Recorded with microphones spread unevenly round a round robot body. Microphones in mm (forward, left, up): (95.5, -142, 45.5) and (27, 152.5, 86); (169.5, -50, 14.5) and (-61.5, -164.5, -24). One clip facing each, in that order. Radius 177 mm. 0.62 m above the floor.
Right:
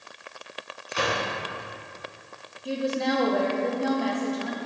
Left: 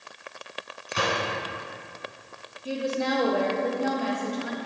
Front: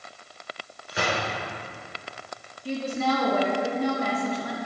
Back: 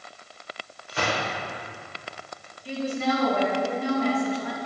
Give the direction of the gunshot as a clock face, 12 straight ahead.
9 o'clock.